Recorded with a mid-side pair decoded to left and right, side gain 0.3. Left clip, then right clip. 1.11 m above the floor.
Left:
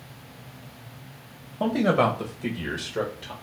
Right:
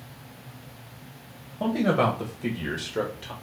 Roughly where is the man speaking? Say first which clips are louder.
Left 2 dB; ahead left.